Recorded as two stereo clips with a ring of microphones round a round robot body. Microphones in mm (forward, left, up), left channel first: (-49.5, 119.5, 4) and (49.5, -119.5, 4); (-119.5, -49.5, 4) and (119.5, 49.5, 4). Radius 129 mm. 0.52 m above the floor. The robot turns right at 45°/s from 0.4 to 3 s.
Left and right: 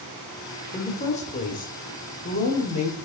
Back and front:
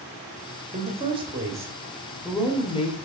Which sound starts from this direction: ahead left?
A woman speaking, at 0.7 s.